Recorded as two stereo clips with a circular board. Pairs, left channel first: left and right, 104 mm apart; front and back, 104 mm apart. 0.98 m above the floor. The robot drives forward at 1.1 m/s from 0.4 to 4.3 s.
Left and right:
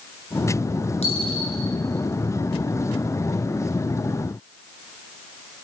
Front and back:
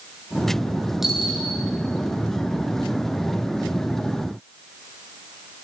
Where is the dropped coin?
95° left, 7.5 m.